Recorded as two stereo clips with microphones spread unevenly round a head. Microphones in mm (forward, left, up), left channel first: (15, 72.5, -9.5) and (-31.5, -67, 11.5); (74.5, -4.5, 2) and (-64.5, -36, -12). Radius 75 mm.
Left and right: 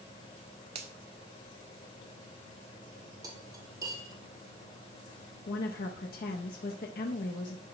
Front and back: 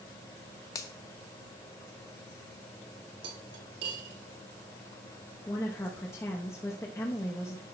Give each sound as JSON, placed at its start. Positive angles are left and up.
{"t": 0.8, "sound": "a finger snap", "azimuth_deg": -55, "distance_m": 1.1}
{"t": 3.2, "sound": "cutlery clinking", "azimuth_deg": -175, "distance_m": 1.8}
{"t": 5.5, "sound": "a woman speaking", "azimuth_deg": 90, "distance_m": 0.8}